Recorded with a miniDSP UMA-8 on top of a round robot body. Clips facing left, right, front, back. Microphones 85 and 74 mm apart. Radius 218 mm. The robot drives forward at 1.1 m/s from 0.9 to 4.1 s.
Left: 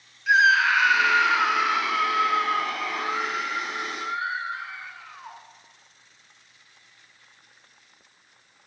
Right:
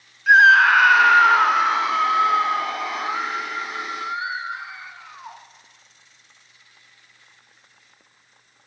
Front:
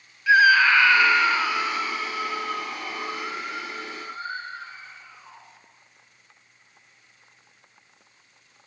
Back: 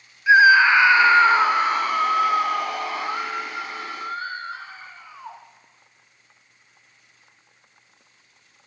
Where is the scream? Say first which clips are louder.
Right 6 dB, back 3 dB; 115° right, 1.5 m; by 5.4 s 165° right, 4.5 m.